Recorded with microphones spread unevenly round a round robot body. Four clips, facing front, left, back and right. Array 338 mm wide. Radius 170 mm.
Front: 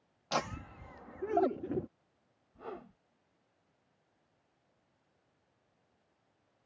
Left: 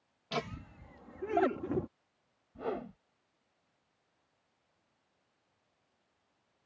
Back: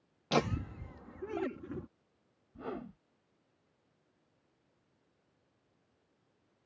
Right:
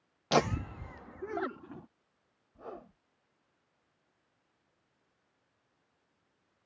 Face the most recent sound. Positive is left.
turn(degrees=150)